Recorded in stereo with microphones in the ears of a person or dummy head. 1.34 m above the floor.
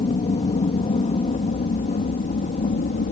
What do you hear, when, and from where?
0.0 s an aircraft: 30° left (ahead or behind); by 3.1 s 40° left (ahead or behind)